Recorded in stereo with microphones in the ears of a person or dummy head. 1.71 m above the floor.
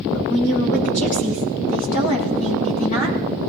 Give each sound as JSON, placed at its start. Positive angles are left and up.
{"t": 0.1, "sound": "a woman speaking", "side_deg": 45, "distance_m": 6.0}